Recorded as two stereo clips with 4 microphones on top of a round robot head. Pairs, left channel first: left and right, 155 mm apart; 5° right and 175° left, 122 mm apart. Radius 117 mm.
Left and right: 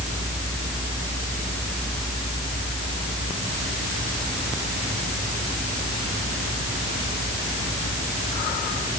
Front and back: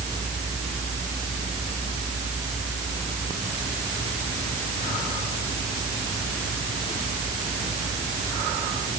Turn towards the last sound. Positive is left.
No sound to turn to.